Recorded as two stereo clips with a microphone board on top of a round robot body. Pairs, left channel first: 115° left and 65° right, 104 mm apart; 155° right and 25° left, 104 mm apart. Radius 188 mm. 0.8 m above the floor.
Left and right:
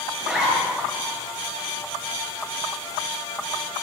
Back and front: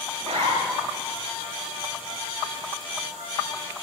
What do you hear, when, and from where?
0.2 s a zipper: 15° left, 9 m